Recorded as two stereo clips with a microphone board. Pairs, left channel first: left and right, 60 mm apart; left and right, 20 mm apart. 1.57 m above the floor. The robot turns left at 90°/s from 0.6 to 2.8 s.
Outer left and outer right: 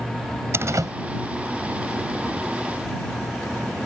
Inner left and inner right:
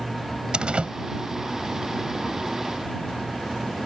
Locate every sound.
0.5 s a door slam: 45° right (ahead or behind); by 0.9 s 75° right (ahead or behind)